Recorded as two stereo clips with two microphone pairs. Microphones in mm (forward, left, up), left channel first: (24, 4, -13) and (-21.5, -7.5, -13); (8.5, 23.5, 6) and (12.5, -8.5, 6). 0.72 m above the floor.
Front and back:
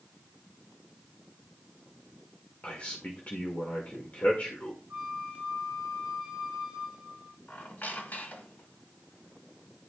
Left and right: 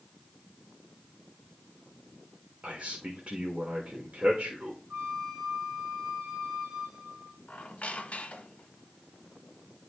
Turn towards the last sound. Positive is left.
turn(degrees=60)